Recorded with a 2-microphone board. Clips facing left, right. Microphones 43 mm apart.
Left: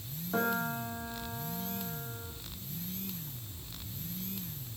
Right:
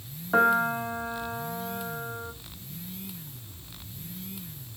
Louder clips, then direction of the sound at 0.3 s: Right 10 dB; 80° right.